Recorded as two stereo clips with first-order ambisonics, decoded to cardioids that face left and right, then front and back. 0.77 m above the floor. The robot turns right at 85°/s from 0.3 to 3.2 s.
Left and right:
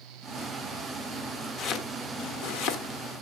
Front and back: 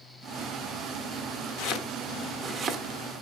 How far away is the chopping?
About 1.1 m.